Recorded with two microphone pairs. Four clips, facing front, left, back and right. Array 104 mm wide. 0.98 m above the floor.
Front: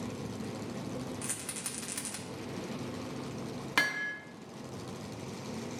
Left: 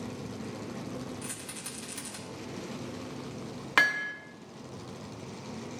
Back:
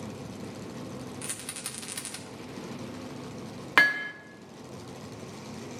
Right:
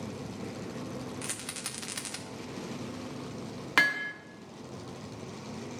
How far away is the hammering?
About 0.6 m.